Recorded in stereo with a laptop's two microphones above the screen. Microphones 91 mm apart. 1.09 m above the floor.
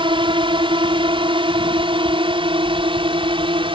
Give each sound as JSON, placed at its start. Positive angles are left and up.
{"t": 0.0, "sound": "a drone", "side_deg": -65}